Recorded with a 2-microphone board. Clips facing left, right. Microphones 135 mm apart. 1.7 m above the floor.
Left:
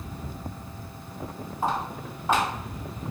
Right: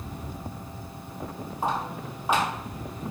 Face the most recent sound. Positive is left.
turn(degrees=-10)  # may be behind; listen again after turning